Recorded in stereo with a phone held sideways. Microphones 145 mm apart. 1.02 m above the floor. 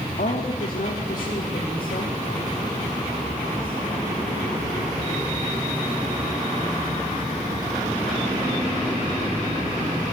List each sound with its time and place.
0.2 s a woman speaking: 75° left (ahead or behind), 2 m; by 4.1 s 70° left (ahead or behind), 6.5 m